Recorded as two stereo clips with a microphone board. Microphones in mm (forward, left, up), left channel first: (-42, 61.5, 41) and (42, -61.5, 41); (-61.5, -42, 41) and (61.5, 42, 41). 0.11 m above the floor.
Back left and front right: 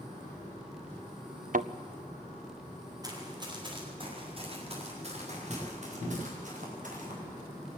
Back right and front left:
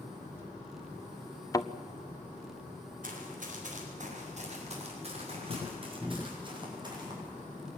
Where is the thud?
80° right, 0.9 m.